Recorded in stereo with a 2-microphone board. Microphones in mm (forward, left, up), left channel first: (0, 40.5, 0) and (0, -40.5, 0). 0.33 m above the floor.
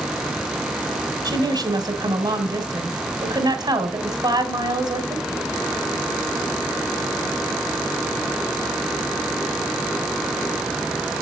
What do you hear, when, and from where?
1.2 s a woman speaking: 60° right (ahead or behind), 2.5 m